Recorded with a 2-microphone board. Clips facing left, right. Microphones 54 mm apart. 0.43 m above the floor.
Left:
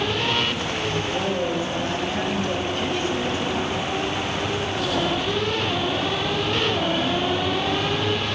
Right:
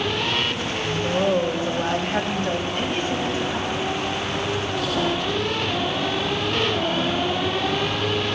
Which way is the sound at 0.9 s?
55° right (ahead or behind).